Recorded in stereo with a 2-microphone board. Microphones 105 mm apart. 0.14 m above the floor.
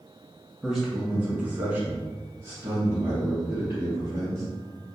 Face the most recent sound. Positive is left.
turn(degrees=-30)  # may be behind; listen again after turning